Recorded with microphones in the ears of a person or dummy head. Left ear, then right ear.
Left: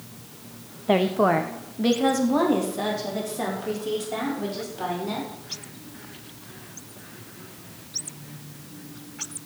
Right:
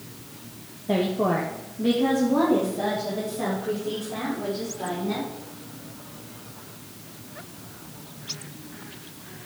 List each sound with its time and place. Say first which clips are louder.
0.9 s a woman speaking: left 4 dB; 40° left (ahead or behind), 0.8 m; by 5.2 s 80° left, 7 m